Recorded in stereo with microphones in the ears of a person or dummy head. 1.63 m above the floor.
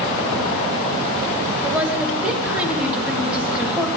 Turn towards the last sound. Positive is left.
turn(degrees=-10)  # may be behind; listen again after turning